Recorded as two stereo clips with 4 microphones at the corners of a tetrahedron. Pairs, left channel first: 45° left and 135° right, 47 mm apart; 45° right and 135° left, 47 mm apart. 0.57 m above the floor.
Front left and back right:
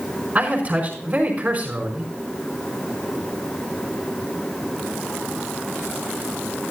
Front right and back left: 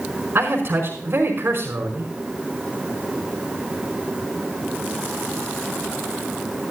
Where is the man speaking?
170° left, 5 m.